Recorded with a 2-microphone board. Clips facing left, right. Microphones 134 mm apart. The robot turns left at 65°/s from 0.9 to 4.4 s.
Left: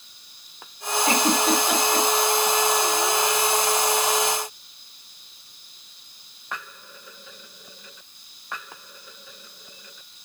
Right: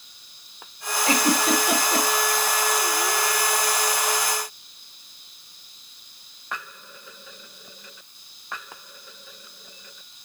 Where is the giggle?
30° left (ahead or behind), 3 m; by 2.1 s 35° right (ahead or behind), 3 m.